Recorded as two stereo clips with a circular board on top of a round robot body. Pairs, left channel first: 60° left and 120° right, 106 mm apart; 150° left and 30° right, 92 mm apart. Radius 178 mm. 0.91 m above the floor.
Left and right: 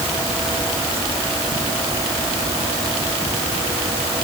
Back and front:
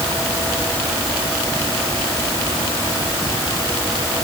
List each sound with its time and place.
Only background noise.